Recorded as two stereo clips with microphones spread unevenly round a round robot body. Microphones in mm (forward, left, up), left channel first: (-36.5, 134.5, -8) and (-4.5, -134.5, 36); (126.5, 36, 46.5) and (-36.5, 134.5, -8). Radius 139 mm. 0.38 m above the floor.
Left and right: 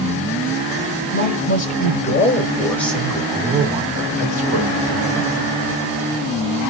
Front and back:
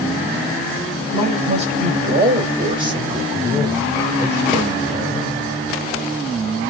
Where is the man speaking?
130° left, 1.7 m; by 5.3 s 130° right, 1.8 m.